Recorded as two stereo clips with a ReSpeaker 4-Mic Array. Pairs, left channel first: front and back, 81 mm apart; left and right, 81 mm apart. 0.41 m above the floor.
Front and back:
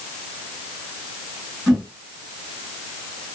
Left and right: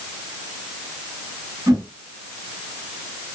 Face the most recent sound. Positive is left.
turn(degrees=-90)